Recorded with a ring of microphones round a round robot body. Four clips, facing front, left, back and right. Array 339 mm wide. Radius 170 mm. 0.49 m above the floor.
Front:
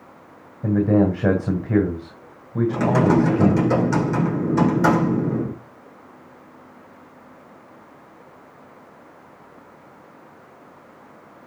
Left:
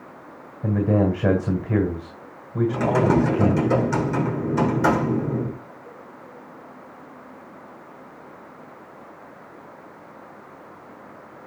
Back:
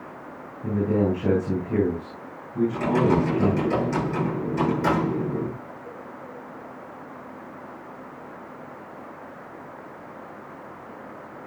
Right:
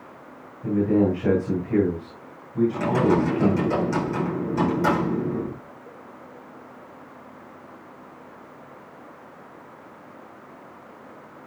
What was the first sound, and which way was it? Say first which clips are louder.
A man speaking: right 1 dB, front 5 dB; 35° left.